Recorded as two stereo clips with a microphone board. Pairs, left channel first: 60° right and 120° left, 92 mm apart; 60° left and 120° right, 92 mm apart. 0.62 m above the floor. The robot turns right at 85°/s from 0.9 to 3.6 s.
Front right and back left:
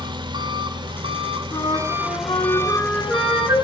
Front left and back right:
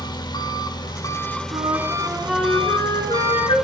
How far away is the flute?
About 4 m.